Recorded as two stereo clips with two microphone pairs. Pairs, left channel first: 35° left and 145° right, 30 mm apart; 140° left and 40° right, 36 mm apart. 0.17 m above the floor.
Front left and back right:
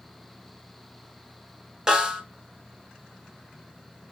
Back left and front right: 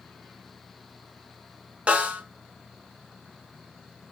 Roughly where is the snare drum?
Right.